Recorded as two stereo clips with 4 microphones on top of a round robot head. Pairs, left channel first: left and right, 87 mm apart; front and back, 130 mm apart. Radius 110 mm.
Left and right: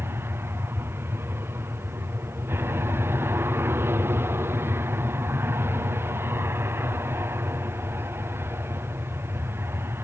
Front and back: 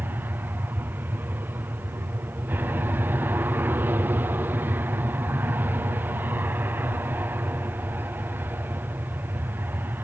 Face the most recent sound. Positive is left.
turn(degrees=-120)